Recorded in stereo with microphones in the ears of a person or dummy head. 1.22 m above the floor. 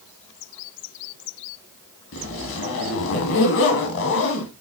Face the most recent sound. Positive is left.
turn(degrees=60)  # may be behind; listen again after turning